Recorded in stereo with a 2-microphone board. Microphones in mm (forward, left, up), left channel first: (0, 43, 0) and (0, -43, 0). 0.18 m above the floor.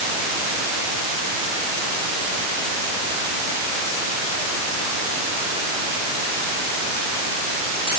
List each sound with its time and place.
Only background noise.